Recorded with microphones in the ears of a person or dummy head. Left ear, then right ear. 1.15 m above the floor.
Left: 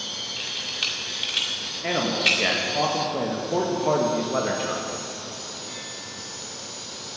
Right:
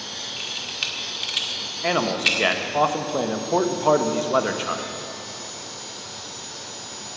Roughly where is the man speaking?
Right.